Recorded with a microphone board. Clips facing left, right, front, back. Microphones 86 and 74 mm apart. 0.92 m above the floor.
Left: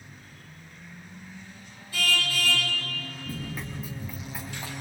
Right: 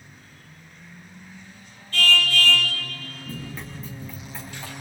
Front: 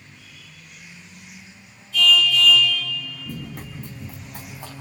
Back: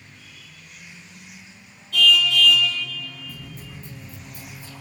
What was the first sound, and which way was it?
A car horn, 170° left.